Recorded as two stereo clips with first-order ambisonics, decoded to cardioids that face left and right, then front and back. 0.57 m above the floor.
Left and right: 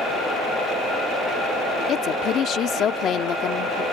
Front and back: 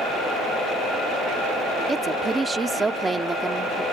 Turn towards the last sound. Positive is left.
turn(degrees=110)